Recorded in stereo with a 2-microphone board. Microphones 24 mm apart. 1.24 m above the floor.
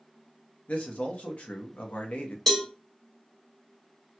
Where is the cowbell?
10° left (ahead or behind), 0.9 m.